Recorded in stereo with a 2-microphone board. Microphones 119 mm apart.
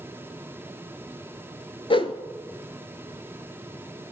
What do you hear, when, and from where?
1.9 s a whoosh: 45° left (ahead or behind), 0.5 m